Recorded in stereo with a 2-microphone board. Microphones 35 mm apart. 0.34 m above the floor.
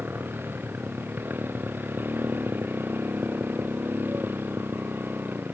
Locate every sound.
0.0 s a motorcycle: 75° right (ahead or behind)